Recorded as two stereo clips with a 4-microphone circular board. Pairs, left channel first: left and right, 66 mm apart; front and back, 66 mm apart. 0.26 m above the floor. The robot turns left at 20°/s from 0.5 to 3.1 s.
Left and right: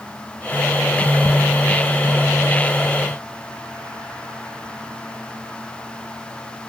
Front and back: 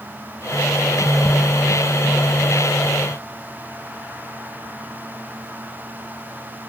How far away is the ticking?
No ticking in this recording.